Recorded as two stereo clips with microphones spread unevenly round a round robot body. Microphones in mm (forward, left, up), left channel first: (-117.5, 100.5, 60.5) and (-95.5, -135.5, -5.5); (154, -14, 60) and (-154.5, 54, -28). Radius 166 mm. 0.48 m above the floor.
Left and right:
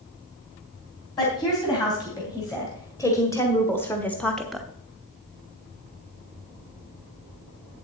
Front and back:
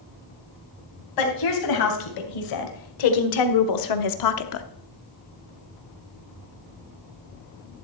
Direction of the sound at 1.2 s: 15° left.